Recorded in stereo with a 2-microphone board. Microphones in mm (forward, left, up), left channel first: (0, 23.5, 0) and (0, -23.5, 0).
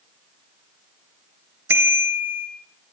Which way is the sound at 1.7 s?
55° right (ahead or behind).